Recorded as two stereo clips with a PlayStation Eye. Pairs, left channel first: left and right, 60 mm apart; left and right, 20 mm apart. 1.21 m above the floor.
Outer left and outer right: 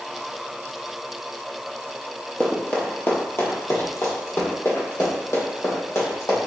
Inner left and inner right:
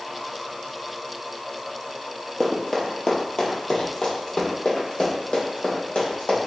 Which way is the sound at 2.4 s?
25° left (ahead or behind).